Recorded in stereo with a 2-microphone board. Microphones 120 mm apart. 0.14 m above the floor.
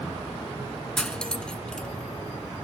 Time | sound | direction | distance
1.0 | cutlery clinking | 5° left (ahead or behind) | 1.0 m